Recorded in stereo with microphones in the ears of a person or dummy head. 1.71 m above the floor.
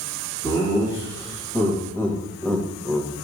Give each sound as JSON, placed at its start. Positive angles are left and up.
{"t": 0.4, "sound": "laughter", "side_deg": 25, "distance_m": 2.5}